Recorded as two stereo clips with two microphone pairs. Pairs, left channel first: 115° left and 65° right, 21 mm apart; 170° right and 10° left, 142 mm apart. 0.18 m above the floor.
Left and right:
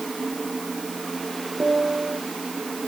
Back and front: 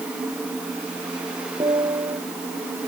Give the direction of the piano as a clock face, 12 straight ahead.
1 o'clock.